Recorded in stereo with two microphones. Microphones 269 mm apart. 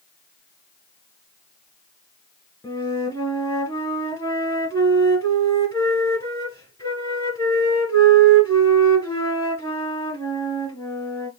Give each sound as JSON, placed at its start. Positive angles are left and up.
{"t": 2.6, "sound": "a flute", "side_deg": 10, "distance_m": 1.7}